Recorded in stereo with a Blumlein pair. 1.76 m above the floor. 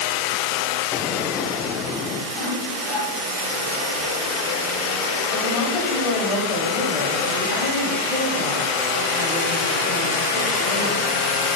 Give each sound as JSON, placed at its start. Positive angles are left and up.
{"t": 0.9, "sound": "an explosion", "azimuth_deg": 25, "distance_m": 0.6}
{"t": 2.3, "sound": "sawing", "azimuth_deg": 10, "distance_m": 4.0}
{"t": 5.3, "sound": "a woman speaking", "azimuth_deg": 40, "distance_m": 3.5}